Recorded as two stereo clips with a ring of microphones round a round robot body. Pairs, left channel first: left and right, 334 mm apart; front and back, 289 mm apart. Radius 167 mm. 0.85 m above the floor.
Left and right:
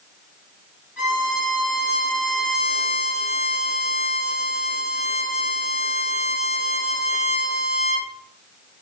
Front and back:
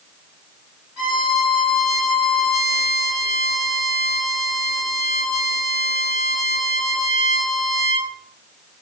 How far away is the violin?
About 1.7 m.